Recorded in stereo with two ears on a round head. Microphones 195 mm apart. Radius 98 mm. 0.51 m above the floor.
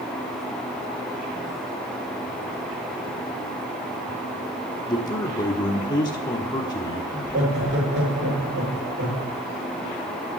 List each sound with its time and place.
4.9 s a man speaking: 20° left (ahead or behind), 1.0 m
7.1 s laughter: 55° right (ahead or behind), 7.5 m